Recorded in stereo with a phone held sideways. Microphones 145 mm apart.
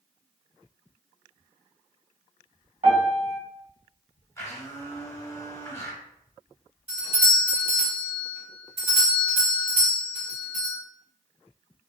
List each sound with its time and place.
2.8 s a piano: 65° right (ahead or behind), 1.8 m
4.4 s a blender: 20° left (ahead or behind), 0.9 m
6.9 s a doorbell: 50° right (ahead or behind), 1.8 m